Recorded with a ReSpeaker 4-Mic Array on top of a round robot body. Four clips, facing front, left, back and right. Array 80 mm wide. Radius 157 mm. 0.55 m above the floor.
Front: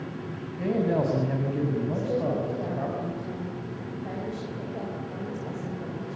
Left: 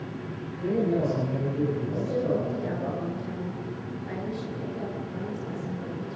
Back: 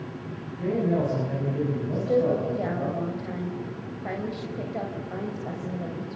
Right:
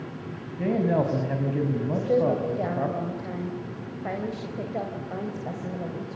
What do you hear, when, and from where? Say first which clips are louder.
0.6 s a man speaking: right 2 dB, even; 75° right, 5.5 m; by 2.9 s 85° right, 5.5 m
1.9 s a woman speaking: right 4 dB, back 4 dB; 115° right, 4.5 m